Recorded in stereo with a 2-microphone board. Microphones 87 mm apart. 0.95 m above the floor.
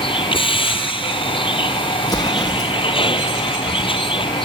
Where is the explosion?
45° left (ahead or behind).